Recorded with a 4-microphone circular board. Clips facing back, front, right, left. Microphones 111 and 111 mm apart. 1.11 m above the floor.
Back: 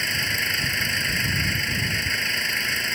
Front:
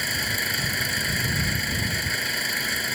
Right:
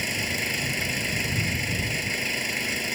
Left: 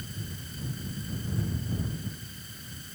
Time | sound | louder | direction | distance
0.0 | an engine running | even, right 11 dB | 85° right | ?